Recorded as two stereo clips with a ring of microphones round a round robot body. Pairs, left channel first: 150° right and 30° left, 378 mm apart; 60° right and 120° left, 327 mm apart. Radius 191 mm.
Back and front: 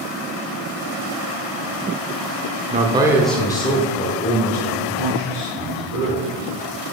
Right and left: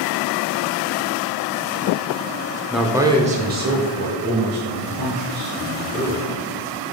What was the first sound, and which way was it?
A man speaking, 25° left.